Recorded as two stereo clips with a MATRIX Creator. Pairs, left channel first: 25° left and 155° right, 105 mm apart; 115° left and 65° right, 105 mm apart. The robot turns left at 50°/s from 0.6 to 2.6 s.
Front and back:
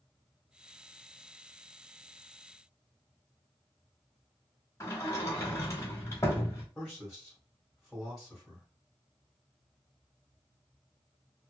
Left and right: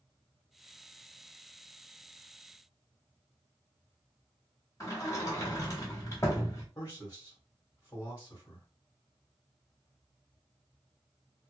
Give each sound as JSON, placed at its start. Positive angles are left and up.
{"t": 4.8, "sound": "a sliding door", "azimuth_deg": 70, "distance_m": 1.0}
{"t": 6.8, "sound": "a man speaking", "azimuth_deg": 115, "distance_m": 1.5}